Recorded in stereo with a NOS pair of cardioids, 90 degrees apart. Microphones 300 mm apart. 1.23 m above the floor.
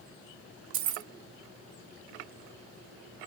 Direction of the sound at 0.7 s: 70° right.